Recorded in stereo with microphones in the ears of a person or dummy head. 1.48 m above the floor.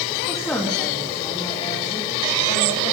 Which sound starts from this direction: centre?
A woman speaking, at 0.3 s.